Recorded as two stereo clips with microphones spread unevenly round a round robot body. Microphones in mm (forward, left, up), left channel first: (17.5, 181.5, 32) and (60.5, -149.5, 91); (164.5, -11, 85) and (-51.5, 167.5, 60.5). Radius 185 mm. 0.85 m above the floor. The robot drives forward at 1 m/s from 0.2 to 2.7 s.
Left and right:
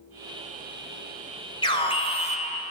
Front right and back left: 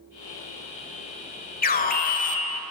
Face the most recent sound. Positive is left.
turn(degrees=30)